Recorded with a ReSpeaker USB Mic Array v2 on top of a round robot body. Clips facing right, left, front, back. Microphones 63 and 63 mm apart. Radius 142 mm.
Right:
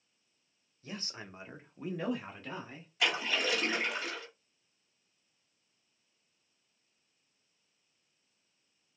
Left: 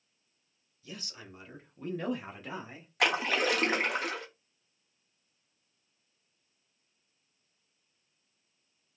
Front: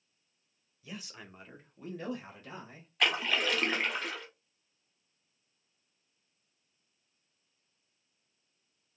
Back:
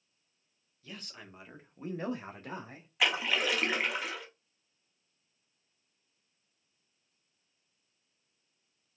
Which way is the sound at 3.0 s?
100° left.